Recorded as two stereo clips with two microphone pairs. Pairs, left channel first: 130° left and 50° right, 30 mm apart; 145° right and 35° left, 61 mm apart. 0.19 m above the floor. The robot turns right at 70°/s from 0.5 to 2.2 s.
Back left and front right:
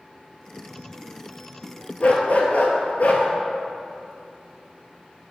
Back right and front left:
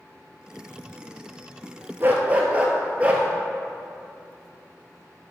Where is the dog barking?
90° left, 0.9 m; by 3.3 s 100° left, 0.9 m.